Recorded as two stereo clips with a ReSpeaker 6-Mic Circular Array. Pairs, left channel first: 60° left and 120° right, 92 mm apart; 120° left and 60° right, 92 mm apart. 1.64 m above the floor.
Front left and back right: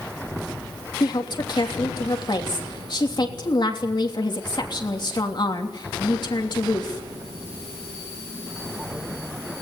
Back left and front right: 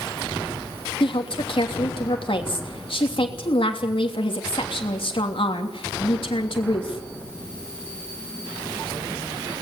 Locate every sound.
1.0 s a woman speaking: 100° left, 3 m